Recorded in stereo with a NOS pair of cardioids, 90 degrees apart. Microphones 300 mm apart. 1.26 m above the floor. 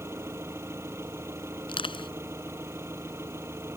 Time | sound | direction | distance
0.0 | an engine running | 10° right | ?
1.7 | crushing | 20° left | ?